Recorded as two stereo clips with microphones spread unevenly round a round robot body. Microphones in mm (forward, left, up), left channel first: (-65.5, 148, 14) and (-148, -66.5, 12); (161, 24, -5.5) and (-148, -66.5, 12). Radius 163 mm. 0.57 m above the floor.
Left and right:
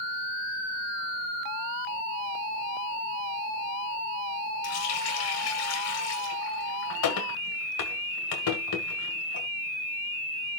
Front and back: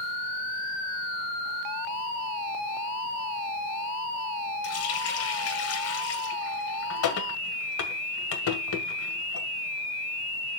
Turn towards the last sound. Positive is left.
turn(degrees=65)